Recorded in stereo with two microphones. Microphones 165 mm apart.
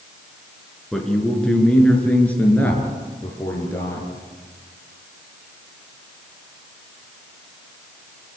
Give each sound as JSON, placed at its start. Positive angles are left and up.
{"t": 0.9, "sound": "a man speaking", "side_deg": 0, "distance_m": 5.5}